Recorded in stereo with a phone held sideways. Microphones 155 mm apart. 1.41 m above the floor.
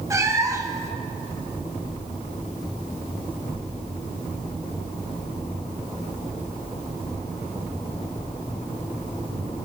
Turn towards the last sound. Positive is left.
turn(degrees=-20)  # may be behind; listen again after turning